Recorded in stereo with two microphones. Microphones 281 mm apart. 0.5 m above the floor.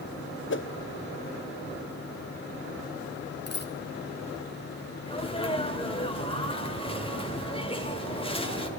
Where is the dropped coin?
35° left (ahead or behind), 1.3 m.